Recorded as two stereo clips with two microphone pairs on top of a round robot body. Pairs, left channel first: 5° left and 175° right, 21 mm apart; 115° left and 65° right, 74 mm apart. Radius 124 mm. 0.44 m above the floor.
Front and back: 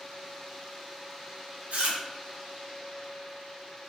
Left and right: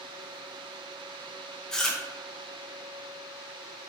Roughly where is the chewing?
Behind.